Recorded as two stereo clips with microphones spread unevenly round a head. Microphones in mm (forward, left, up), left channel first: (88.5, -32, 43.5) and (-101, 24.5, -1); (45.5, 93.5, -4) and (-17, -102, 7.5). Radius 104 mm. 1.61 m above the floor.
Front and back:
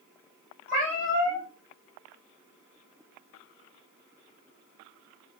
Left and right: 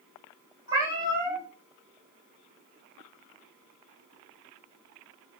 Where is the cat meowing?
40° right, 1.7 m.